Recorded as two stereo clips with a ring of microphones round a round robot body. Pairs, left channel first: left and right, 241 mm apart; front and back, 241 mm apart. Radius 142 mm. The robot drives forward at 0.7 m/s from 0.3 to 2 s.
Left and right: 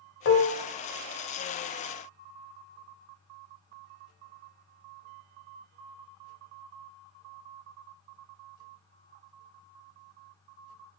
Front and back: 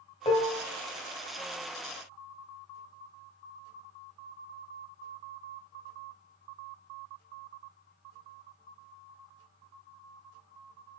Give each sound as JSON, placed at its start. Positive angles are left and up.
{"t": 0.2, "sound": "dishes clattering", "azimuth_deg": 65, "distance_m": 1.3}